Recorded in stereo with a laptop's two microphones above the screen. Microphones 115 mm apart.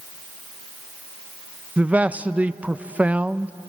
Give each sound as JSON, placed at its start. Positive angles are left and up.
{"t": 1.8, "sound": "a man speaking", "side_deg": -15, "distance_m": 0.5}